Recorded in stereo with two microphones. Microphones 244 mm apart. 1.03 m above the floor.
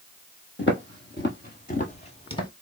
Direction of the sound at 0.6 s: 50° left (ahead or behind).